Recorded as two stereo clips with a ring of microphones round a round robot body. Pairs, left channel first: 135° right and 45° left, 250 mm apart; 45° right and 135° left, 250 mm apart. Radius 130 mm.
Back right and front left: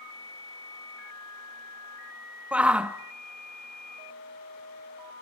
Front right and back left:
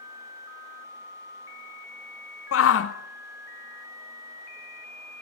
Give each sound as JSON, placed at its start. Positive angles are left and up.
{"t": 2.5, "sound": "a shout", "azimuth_deg": -40, "distance_m": 1.0}